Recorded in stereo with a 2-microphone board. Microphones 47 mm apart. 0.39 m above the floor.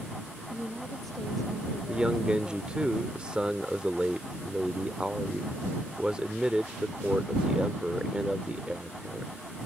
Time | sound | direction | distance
0.5 | a woman speaking | 5° left (ahead or behind) | ?
1.9 | a man speaking | 20° right (ahead or behind) | ?